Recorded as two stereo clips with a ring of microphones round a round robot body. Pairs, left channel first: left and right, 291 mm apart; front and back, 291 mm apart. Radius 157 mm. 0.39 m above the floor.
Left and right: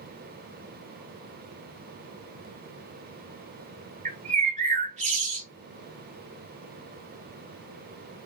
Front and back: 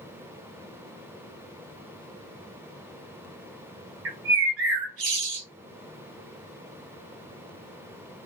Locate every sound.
4.0 s a bird: 150° right, 1.5 m